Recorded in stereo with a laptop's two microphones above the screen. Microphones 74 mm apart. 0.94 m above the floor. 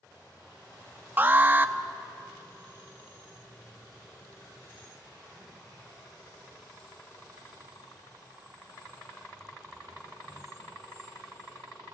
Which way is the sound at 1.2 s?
25° right (ahead or behind).